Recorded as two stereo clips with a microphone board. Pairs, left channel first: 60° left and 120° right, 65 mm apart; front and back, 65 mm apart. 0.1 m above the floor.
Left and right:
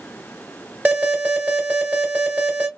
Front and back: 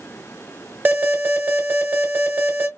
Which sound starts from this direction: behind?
An alarm, at 0.8 s.